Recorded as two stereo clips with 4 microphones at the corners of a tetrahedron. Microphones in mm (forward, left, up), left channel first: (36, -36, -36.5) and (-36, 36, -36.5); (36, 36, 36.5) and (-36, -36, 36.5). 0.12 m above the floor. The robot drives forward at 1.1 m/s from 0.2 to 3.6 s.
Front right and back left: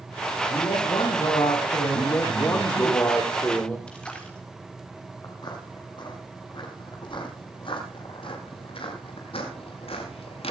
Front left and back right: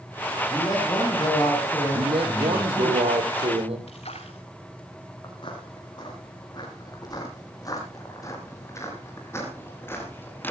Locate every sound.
0.5 s a man speaking: 5° right, 9 m; by 2.9 s 10° right, 6.5 m
1.9 s a man speaking: 100° right, 5 m; by 3.8 s 120° right, 5.5 m
3.9 s a splash: 35° left, 3.5 m
5.2 s footsteps: 5° left, 7.5 m; by 10.5 s 25° right, 7.5 m